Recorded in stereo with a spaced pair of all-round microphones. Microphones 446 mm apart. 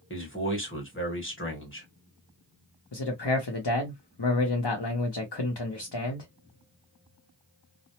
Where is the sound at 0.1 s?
25° left (ahead or behind), 1.1 m.